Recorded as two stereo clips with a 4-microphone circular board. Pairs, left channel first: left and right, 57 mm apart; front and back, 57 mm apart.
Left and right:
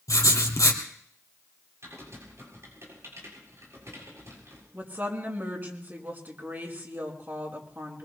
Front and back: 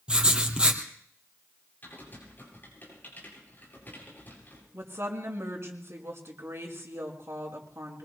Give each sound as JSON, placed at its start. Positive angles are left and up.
{"t": 0.1, "sound": "writing", "azimuth_deg": 110, "distance_m": 2.5}
{"t": 1.8, "sound": "typing on a keyboard", "azimuth_deg": -55, "distance_m": 8.0}
{"t": 4.7, "sound": "a woman speaking", "azimuth_deg": -140, "distance_m": 5.0}